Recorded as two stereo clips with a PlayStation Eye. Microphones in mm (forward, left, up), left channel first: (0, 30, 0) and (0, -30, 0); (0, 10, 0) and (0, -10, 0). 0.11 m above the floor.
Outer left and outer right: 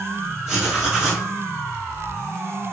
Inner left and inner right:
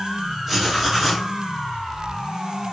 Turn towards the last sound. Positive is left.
turn(degrees=-10)  # may be behind; listen again after turning